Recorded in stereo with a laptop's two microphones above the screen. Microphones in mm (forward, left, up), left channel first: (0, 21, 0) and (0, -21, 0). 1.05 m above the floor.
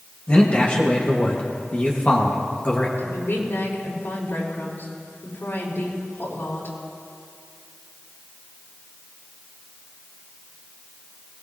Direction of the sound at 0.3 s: 35° left (ahead or behind).